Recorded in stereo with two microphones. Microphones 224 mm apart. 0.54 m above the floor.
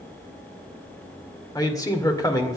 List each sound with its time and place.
1.6 s a man speaking: 15° left (ahead or behind), 2.0 m